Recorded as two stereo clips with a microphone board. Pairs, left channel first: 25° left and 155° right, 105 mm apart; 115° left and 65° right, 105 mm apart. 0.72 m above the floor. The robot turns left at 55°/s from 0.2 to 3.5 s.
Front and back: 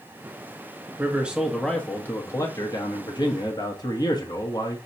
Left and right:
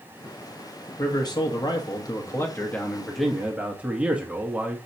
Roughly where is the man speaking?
Behind left.